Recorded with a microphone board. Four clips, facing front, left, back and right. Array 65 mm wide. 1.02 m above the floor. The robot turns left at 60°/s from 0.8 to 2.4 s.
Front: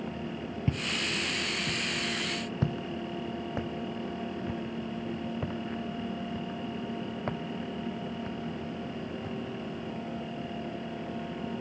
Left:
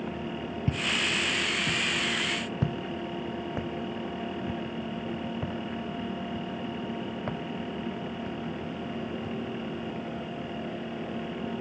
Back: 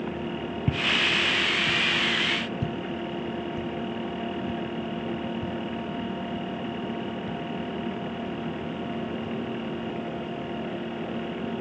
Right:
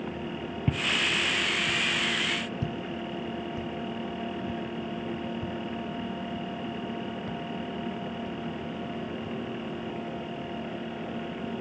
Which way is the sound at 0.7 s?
125° right.